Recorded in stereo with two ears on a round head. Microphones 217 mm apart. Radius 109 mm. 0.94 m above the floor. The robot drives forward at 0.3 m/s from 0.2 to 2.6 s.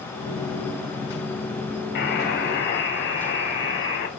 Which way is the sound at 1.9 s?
45° left (ahead or behind).